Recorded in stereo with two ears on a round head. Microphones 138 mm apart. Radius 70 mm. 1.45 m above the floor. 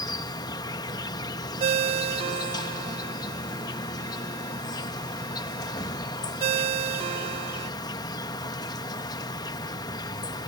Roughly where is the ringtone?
Right.